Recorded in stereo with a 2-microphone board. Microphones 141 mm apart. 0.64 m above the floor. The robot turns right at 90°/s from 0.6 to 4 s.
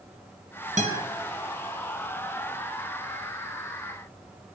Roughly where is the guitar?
Right.